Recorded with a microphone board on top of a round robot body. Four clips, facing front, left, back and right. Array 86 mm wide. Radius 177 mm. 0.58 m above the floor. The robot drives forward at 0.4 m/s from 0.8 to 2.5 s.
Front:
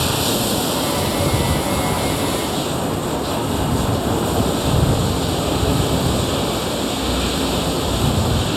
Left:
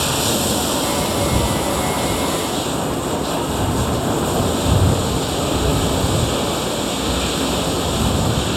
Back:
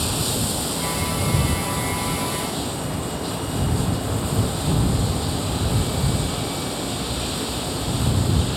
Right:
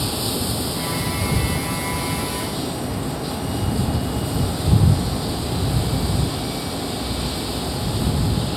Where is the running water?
55° left.